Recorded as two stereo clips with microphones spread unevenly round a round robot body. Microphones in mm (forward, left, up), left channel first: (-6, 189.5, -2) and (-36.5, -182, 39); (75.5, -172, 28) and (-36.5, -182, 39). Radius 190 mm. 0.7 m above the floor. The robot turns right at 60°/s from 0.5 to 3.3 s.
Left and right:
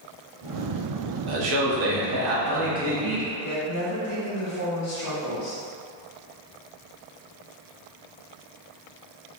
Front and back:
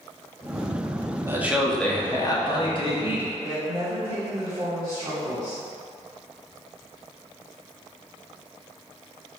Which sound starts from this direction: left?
A woman speaking, at 3.4 s.